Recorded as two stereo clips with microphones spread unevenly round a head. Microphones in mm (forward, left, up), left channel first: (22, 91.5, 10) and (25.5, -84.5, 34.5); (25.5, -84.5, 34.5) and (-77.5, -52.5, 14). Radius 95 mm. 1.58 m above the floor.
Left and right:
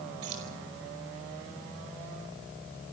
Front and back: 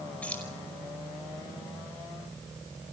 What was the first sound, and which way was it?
Keys jangling, 95° right.